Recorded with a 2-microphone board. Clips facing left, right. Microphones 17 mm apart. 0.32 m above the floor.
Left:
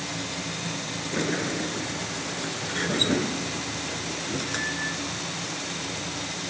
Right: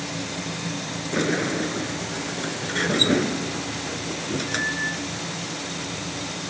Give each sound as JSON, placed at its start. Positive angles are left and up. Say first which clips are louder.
{"t": 1.1, "sound": "a sliding door", "louder": "right 4 dB", "side_deg": -15}